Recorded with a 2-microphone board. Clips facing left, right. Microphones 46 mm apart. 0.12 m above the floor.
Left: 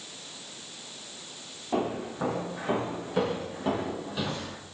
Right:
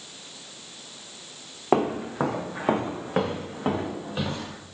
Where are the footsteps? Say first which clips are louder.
Right 6 dB; 75° right (ahead or behind), 0.8 m; by 4.6 s 25° right (ahead or behind), 1.7 m.